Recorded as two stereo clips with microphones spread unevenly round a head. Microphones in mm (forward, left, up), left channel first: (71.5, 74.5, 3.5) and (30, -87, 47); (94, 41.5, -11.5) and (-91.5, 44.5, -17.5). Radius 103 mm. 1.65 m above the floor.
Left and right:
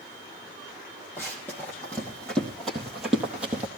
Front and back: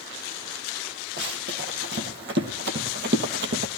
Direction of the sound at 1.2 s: 160° left.